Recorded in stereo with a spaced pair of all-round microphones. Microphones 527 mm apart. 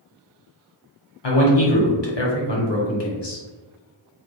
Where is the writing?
No writing in this recording.